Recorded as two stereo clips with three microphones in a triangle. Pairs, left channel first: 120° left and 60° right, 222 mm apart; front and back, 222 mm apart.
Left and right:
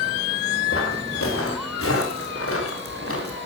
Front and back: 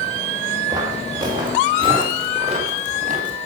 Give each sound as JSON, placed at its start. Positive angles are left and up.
{"t": 0.7, "sound": "footsteps", "azimuth_deg": 105, "distance_m": 8.5}